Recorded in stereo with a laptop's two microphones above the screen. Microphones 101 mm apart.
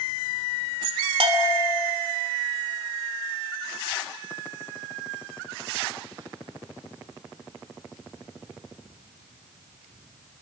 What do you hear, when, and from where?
1.2 s a bell: 70° right (ahead or behind), 2.5 m